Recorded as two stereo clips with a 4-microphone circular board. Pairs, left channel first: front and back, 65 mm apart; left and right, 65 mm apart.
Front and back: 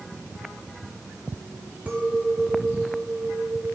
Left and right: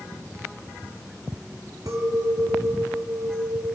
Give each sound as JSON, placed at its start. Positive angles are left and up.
{"t": 1.9, "sound": "a clink", "azimuth_deg": -110, "distance_m": 3.0}